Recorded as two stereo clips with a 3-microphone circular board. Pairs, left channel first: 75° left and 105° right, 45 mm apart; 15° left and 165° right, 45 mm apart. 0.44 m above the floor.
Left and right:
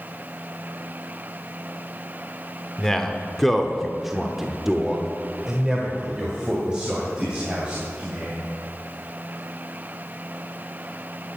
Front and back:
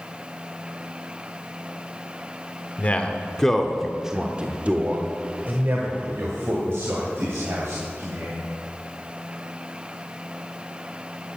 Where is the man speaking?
Straight ahead, 1.1 m; by 8.4 s straight behind, 3 m.